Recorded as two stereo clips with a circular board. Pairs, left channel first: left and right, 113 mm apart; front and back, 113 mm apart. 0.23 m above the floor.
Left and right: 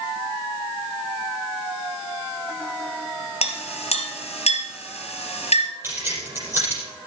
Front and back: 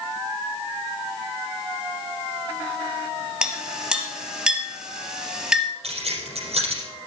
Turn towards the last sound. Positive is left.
turn(degrees=-160)